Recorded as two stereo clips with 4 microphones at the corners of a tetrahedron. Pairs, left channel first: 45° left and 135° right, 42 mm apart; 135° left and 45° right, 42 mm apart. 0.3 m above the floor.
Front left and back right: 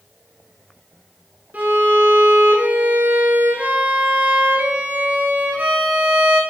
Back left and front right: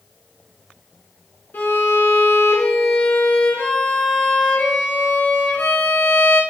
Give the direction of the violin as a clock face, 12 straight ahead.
6 o'clock.